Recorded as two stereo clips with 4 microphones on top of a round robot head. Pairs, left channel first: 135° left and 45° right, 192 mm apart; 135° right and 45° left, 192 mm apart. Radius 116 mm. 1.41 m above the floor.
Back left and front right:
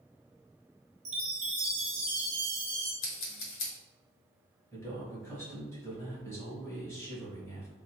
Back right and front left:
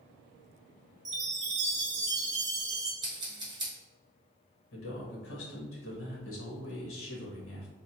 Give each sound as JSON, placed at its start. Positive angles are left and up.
{"t": 1.1, "sound": "a chime", "azimuth_deg": 0, "distance_m": 0.6}
{"t": 3.0, "sound": "scissors", "azimuth_deg": 115, "distance_m": 1.0}
{"t": 4.7, "sound": "a man speaking", "azimuth_deg": -150, "distance_m": 1.3}